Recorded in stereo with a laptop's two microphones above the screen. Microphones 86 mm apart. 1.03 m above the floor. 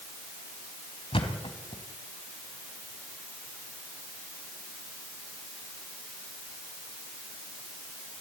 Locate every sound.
1.1 s a thud: 80° left, 3.5 m